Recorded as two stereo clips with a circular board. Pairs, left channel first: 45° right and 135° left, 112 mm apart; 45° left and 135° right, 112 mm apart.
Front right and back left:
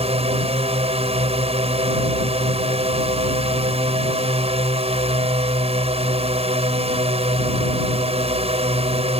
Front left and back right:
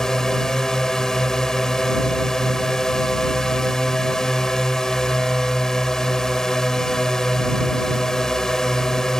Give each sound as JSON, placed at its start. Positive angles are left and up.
{"t": 0.0, "sound": "a drone", "azimuth_deg": 130}